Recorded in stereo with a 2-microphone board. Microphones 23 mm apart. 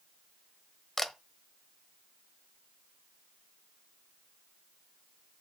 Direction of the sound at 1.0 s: 10° left (ahead or behind).